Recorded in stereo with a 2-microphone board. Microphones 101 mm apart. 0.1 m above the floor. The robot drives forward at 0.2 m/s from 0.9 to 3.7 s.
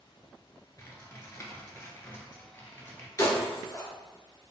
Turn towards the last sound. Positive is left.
turn(degrees=30)  # may be behind; listen again after turning